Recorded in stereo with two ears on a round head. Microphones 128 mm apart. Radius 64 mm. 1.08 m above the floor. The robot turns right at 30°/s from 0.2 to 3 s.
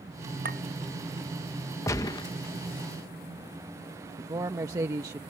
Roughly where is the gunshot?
Left.